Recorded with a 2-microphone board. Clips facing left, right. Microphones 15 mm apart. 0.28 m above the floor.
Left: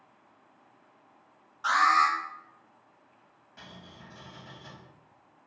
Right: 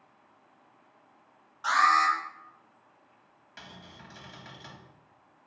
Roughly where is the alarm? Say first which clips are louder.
Even; centre.